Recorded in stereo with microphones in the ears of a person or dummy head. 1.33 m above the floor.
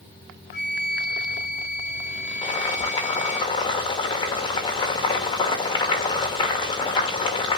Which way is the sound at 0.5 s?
45° left (ahead or behind).